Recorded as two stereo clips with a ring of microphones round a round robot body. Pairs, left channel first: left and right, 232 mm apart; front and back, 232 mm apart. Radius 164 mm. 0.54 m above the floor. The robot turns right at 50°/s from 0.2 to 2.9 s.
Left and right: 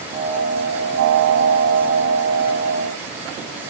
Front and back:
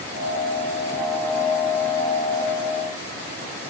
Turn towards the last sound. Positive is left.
No sound to turn to.